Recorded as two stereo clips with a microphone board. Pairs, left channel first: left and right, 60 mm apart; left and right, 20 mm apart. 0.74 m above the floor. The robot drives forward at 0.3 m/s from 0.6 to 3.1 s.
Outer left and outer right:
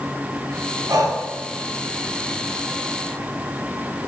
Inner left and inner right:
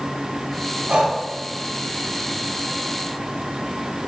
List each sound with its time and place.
0.9 s breathing: 85° right, 1.4 m